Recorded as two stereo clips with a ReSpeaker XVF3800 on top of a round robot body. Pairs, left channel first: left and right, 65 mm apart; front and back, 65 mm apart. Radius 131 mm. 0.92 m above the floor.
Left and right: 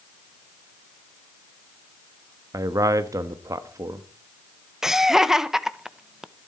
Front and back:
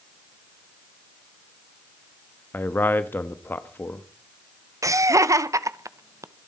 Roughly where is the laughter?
Behind.